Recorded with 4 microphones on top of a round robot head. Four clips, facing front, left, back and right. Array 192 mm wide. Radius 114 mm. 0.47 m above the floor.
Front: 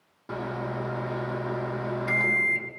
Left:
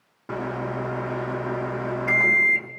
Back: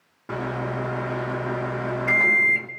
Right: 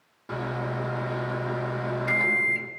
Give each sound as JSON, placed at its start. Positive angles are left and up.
{"t": 0.3, "sound": "a microwave", "azimuth_deg": 125, "distance_m": 1.2}